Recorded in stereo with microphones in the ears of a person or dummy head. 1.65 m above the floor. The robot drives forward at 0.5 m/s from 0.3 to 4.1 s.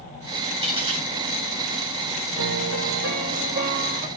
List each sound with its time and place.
0.6 s a dropped coin: 25° right (ahead or behind), 3.5 m
2.4 s a piano: 70° right (ahead or behind), 1.1 m; by 4.1 s 40° right (ahead or behind), 1.6 m